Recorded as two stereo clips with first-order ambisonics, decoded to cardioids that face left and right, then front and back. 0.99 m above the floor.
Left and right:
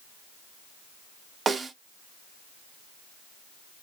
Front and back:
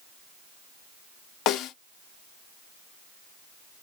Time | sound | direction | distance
1.5 | a snare drum | 25° right | 0.5 m